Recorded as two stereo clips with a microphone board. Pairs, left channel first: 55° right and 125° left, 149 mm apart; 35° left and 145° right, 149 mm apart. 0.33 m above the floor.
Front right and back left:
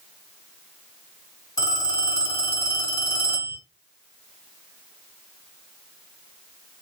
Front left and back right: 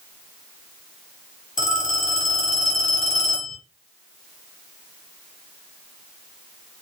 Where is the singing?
I don't hear singing.